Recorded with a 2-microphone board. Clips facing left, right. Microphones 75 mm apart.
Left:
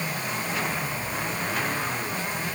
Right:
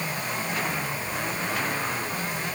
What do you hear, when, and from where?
Only background noise.